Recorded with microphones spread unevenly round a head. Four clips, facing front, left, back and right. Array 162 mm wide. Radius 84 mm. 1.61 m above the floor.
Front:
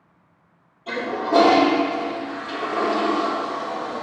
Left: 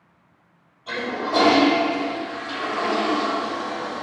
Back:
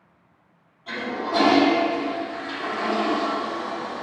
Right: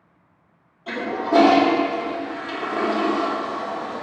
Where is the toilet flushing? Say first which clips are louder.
Right 3 dB, front 4 dB; 65° right, 2.5 m.